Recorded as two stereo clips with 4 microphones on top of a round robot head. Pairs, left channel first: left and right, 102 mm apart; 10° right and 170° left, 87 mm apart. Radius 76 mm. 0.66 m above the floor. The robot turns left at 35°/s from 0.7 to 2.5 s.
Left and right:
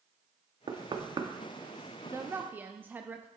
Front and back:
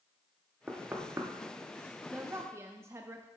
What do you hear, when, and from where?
0.7 s knocking: 115° right, 0.9 m; by 1.3 s 135° right, 0.9 m
2.0 s a woman speaking: 135° right, 0.6 m; by 3.3 s 150° right, 0.6 m